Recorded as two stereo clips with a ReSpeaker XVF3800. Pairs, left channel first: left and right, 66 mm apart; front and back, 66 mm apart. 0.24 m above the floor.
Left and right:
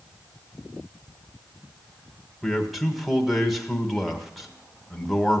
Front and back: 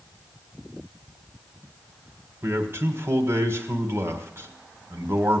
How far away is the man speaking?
About 1.8 m.